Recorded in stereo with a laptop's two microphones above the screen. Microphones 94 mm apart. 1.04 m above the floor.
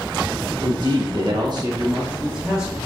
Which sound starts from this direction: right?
A man speaking, at 0.6 s.